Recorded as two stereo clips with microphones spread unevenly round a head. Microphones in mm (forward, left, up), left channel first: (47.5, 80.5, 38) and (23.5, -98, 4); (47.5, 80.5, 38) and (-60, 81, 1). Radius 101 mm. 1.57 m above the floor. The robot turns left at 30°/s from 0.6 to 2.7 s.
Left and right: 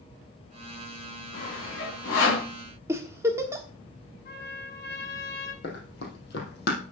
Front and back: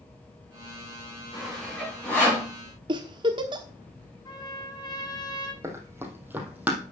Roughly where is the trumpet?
Ahead left.